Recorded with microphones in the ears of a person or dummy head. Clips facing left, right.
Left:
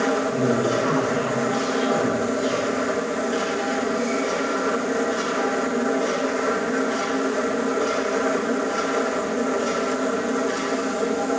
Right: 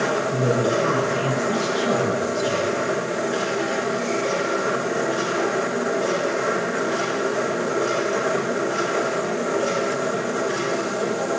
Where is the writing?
I don't hear writing.